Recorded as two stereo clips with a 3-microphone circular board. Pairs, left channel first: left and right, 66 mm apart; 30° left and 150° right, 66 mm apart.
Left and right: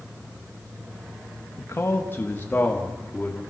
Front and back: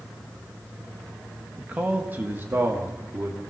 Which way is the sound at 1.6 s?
135° left.